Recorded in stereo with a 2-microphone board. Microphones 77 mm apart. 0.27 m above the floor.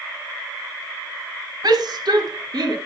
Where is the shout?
65° right (ahead or behind), 2.5 m; by 2.8 s 70° right (ahead or behind), 3.5 m.